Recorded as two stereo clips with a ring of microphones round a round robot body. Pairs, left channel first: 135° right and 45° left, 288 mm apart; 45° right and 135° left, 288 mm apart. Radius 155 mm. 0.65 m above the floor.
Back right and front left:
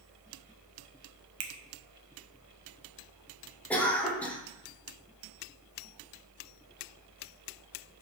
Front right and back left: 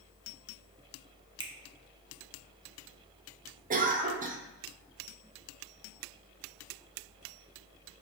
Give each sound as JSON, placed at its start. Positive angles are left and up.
{"t": 1.4, "sound": "a finger snap", "azimuth_deg": 65, "distance_m": 0.6}
{"t": 3.7, "sound": "a cough", "azimuth_deg": 145, "distance_m": 0.7}